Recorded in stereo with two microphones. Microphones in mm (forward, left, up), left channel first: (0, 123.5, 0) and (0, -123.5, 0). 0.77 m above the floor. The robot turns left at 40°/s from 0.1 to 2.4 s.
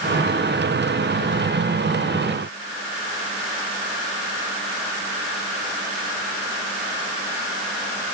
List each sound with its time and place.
Only background noise.